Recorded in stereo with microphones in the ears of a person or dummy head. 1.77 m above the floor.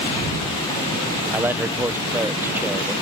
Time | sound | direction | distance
1.3 | a man speaking | 15° right (ahead or behind) | ?